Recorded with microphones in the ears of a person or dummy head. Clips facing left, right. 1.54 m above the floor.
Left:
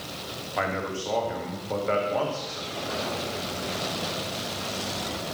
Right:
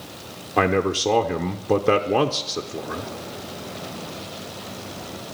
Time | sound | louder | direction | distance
0.6 | a man speaking | right 10 dB | 45° right (ahead or behind) | 0.6 m